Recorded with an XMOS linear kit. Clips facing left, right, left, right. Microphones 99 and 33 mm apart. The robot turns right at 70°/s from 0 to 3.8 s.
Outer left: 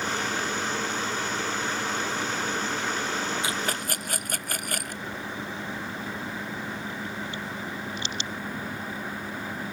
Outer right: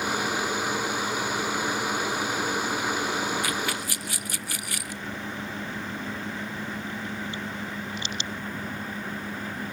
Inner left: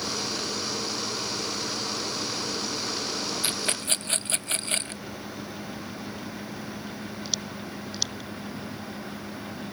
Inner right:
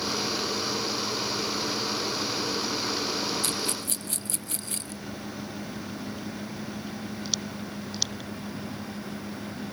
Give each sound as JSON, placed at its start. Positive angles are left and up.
{"t": 3.4, "sound": "a rattle", "side_deg": 25}